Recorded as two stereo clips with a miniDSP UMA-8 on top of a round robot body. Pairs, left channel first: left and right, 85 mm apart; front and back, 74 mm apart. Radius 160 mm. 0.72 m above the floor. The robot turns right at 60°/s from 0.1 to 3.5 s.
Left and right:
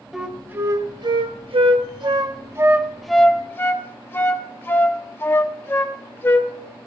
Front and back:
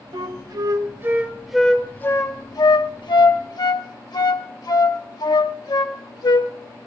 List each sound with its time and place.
0.1 s a flute: 175° right, 1.3 m; by 6.5 s 25° left, 1.3 m